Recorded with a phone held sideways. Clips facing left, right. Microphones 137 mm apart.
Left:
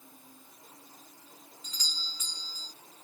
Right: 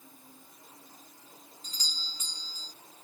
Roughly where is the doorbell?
Right.